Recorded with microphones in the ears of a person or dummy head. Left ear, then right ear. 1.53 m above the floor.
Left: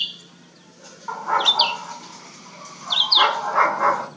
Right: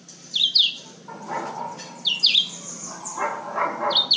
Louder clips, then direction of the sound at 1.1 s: Left 11 dB; 55° left (ahead or behind).